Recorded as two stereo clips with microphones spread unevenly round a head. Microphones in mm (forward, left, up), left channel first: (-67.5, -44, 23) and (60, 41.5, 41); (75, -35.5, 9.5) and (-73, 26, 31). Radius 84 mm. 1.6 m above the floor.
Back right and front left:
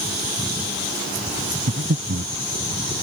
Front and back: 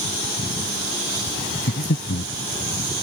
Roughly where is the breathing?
Ahead.